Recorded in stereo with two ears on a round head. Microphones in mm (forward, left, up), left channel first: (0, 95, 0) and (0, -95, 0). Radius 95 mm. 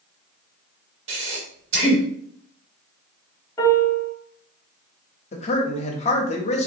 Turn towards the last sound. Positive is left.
turn(degrees=30)  # may be behind; listen again after turning